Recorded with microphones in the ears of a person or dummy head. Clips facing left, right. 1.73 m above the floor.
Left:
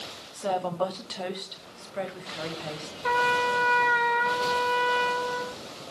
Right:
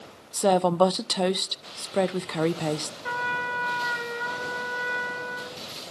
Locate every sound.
0.3 s a woman speaking: 55° right (ahead or behind), 0.5 m
3.0 s a trumpet: 70° left (ahead or behind), 4.5 m